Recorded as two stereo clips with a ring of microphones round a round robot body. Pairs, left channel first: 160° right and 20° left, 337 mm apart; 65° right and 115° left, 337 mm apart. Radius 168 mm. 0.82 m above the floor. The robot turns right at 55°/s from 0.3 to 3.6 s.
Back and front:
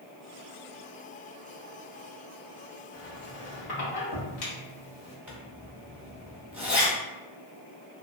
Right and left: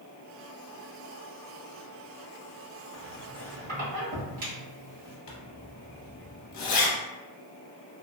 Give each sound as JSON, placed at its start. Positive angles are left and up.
{"t": 2.9, "sound": "a squeak", "azimuth_deg": 140, "distance_m": 1.3}
{"t": 5.3, "sound": "a zipper", "azimuth_deg": -60, "distance_m": 1.0}